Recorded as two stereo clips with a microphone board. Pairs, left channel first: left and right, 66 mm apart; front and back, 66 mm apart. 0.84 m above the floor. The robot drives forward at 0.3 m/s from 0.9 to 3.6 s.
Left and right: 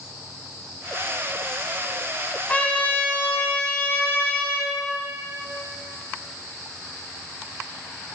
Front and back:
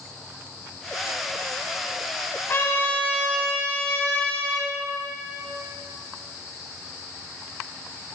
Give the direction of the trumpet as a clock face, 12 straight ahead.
11 o'clock.